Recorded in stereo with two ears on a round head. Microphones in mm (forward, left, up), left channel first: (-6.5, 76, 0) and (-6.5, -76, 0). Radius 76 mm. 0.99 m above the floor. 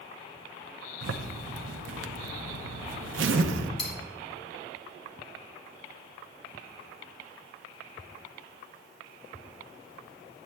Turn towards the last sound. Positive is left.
turn(degrees=35)  # may be behind; listen again after turning